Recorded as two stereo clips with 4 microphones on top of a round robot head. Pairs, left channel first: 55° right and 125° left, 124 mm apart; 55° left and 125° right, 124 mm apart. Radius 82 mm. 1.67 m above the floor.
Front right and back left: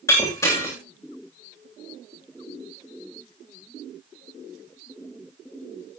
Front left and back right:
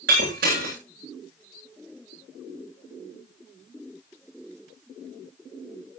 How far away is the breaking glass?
About 9 m.